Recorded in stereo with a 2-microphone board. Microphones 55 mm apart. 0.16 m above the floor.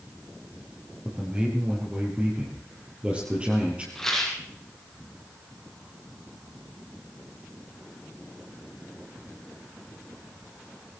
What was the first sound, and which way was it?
A man speaking, 20° right (ahead or behind).